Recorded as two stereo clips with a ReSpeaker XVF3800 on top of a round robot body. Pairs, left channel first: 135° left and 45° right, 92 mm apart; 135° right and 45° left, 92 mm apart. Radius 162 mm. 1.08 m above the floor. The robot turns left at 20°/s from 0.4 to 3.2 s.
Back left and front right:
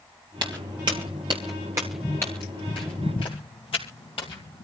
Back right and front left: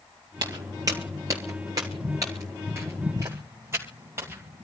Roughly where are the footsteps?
Ahead.